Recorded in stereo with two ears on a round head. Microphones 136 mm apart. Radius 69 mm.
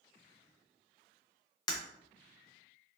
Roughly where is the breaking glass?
Left.